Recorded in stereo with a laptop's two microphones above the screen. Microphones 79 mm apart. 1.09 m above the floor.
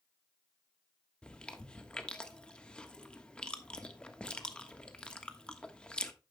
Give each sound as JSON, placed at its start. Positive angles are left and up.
{"t": 1.2, "sound": "chewing", "side_deg": 10, "distance_m": 1.3}